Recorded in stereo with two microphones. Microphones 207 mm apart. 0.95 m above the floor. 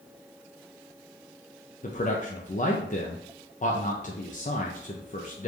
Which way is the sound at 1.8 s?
40° left (ahead or behind).